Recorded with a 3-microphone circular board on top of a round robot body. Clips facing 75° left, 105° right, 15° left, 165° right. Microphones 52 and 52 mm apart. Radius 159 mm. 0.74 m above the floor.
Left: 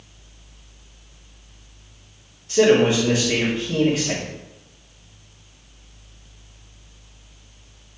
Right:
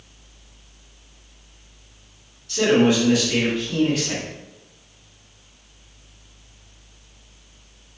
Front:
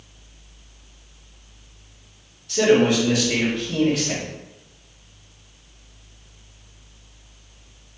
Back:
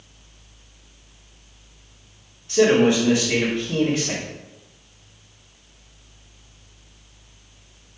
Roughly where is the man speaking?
Behind left.